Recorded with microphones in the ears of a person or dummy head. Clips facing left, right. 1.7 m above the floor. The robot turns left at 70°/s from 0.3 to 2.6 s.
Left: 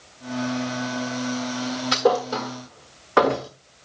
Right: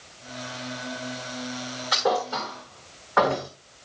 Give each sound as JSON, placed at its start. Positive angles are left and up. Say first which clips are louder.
{"t": 1.9, "sound": "a thud", "louder": "left 4 dB", "side_deg": 30, "distance_m": 1.3}